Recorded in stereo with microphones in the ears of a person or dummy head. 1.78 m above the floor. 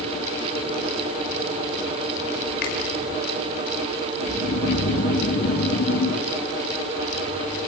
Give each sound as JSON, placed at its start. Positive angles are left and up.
{"t": 2.6, "sound": "a finger snap", "side_deg": 65, "distance_m": 5.0}
{"t": 4.2, "sound": "snoring", "side_deg": 70, "distance_m": 5.0}